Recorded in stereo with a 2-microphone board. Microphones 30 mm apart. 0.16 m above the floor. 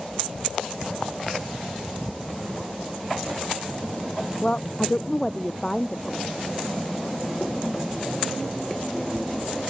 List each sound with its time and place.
4.4 s a woman speaking: 25° left (ahead or behind); by 6.2 s 5° left (ahead or behind)